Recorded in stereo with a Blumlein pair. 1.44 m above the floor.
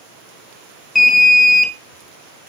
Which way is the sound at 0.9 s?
10° left.